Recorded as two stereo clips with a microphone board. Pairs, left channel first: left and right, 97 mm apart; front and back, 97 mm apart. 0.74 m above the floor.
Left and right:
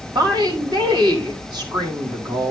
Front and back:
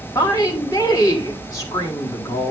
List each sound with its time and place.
0.1 s a woman speaking: 55° right, 3 m